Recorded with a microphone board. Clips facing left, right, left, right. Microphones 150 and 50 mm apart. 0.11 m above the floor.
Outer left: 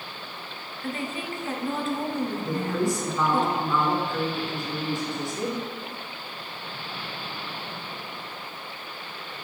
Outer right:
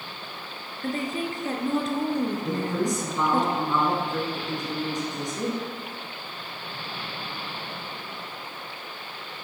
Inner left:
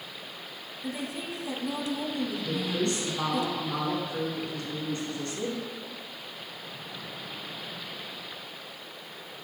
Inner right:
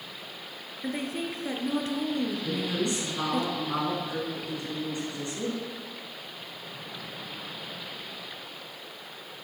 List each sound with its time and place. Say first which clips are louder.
0.8 s a woman speaking: outer right 3 dB, inner right 3 dB; 40° right (ahead or behind), 1.4 m
2.5 s a woman speaking: even, even; 20° right (ahead or behind), 1.5 m